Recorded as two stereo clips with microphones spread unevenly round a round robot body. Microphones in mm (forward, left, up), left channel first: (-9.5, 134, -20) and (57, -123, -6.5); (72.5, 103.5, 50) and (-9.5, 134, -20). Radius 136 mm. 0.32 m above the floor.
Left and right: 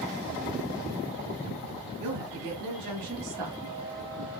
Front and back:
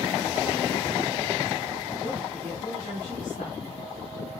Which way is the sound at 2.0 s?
90° right.